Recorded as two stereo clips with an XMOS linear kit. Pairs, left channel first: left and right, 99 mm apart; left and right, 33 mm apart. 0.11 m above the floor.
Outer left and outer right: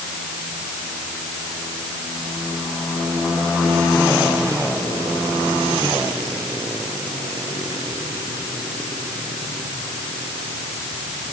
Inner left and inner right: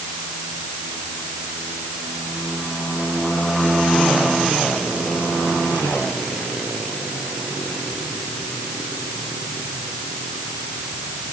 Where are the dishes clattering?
No dishes clattering in this recording.